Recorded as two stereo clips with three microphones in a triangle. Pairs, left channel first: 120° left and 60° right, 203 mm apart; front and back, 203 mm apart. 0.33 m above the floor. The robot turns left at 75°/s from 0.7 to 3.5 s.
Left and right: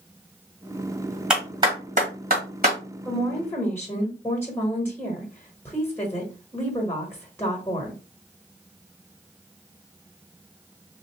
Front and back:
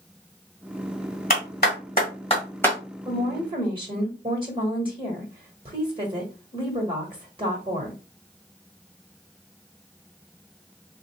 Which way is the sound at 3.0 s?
140° right.